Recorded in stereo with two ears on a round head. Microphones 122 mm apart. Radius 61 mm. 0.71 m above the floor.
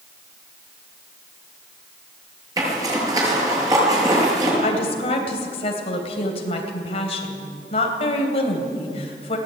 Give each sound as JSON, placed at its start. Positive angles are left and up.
{"t": 2.6, "sound": "a zipper", "side_deg": -25, "distance_m": 6.5}
{"t": 4.6, "sound": "a woman speaking", "side_deg": 45, "distance_m": 3.5}